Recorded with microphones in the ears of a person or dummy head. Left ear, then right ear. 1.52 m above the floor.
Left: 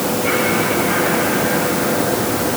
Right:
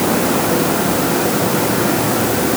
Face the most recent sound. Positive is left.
No sound to turn to.